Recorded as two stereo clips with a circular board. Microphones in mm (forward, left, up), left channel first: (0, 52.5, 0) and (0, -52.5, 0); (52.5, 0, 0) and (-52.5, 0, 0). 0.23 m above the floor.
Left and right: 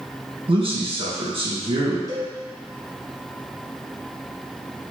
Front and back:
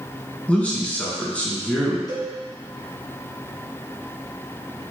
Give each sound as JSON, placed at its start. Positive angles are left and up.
{"t": 0.5, "sound": "a man speaking", "azimuth_deg": -75, "distance_m": 2.5}
{"t": 2.1, "sound": "a cowbell", "azimuth_deg": -40, "distance_m": 2.0}